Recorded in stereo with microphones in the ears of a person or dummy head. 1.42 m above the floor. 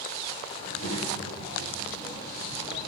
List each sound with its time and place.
0.6 s a child speaking: 45° left (ahead or behind), 5 m; by 2.9 s 30° left (ahead or behind), 5.5 m